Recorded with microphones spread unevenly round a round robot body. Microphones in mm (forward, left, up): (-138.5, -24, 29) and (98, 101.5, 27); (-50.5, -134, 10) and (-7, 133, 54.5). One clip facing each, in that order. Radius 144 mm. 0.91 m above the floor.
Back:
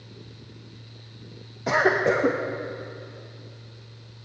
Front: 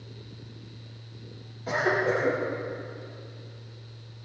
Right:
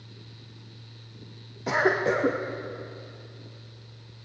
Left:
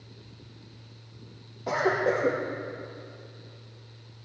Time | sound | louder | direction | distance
1.7 | a cough | back 4 dB, right 1 dB | 145° right | 1.3 m